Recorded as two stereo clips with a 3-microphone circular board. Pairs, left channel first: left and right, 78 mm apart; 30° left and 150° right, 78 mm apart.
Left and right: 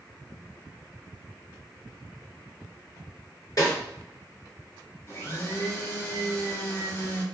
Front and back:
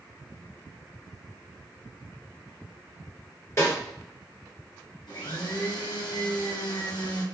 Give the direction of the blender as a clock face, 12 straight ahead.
11 o'clock.